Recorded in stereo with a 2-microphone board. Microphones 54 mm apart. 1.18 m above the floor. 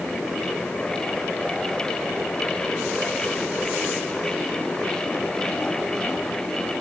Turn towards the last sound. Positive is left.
No sound to turn to.